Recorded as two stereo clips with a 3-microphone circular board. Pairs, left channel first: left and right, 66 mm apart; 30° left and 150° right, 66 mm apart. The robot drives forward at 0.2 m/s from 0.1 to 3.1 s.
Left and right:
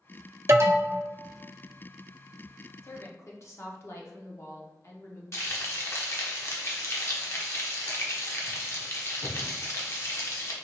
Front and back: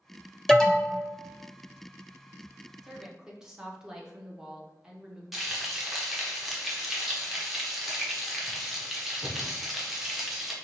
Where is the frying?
125° left, 0.8 m.